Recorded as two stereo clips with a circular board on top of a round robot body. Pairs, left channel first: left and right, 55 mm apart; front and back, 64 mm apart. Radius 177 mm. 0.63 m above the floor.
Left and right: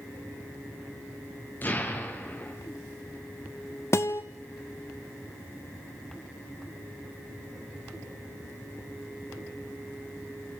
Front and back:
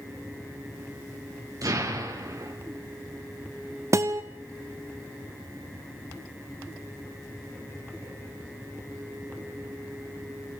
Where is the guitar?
135° left, 0.6 m.